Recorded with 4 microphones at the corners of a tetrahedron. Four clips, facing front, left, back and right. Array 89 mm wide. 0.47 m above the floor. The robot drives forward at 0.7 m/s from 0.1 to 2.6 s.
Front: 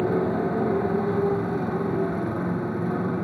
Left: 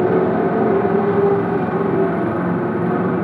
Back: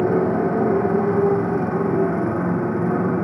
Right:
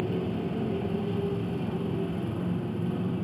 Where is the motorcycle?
110° left; by 3.2 s 115° left.